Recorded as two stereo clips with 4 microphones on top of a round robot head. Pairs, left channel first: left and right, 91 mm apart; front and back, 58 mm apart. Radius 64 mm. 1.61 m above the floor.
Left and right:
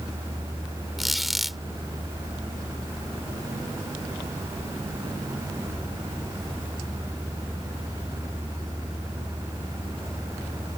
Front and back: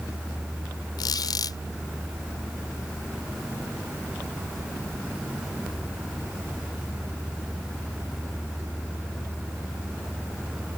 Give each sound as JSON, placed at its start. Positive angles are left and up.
{"t": 1.0, "sound": "a squeak", "azimuth_deg": 0}